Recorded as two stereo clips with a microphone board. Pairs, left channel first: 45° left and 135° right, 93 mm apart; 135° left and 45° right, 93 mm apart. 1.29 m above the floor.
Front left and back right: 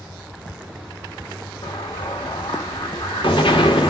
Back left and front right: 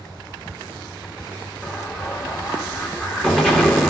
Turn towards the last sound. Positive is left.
turn(degrees=55)